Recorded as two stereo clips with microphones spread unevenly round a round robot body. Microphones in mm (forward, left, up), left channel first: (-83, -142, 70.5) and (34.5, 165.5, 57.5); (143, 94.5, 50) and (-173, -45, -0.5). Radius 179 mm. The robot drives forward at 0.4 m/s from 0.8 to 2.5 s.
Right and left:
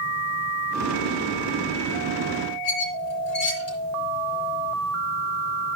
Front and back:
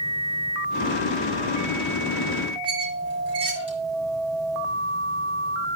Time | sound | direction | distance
2.6 | a squeak | 80° right | 4 m